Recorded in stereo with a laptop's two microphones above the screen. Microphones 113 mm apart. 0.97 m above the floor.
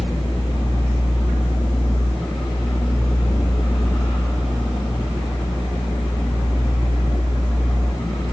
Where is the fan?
45° left (ahead or behind), 1.0 m.